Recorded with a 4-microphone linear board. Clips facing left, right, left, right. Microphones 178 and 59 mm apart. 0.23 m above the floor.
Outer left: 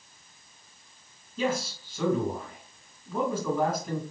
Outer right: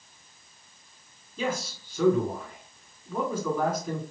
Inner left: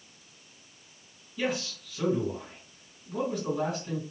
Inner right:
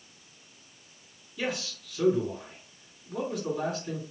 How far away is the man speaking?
About 1.9 m.